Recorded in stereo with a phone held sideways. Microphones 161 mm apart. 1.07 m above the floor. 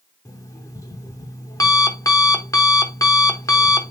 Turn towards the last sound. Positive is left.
turn(degrees=20)  # may be behind; listen again after turning